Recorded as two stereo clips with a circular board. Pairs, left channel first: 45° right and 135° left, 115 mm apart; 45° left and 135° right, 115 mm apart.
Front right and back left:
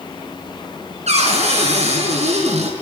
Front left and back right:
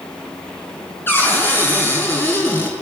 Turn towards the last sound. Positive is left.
turn(degrees=115)